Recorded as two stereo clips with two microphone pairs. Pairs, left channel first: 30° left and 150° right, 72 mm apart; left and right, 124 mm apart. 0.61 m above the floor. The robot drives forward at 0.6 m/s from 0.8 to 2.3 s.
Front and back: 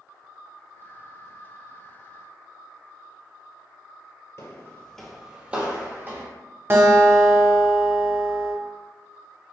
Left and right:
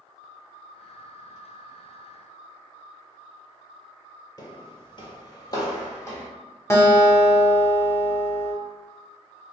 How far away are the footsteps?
About 0.8 m.